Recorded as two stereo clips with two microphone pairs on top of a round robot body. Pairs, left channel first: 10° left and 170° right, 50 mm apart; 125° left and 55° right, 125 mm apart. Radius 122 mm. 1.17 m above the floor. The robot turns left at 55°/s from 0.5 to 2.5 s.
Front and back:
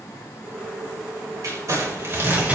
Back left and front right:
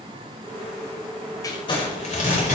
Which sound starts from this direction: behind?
Crumpling, at 1.4 s.